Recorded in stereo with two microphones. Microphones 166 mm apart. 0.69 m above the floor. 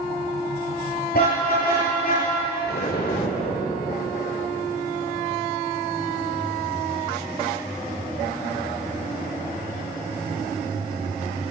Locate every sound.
1.1 s a car horn: 70° left (ahead or behind), 7 m; by 2.3 s 60° left (ahead or behind), 7 m
2.6 s an explosion: 70° left (ahead or behind), 1.8 m